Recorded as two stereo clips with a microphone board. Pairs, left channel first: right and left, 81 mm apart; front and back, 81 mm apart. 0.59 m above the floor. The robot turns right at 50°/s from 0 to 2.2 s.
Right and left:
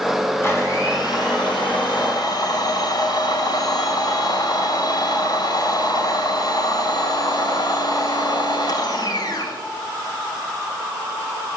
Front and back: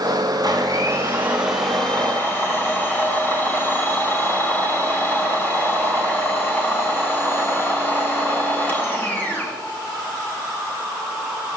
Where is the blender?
150° right, 3.5 m; by 9.6 s 65° right, 3.5 m.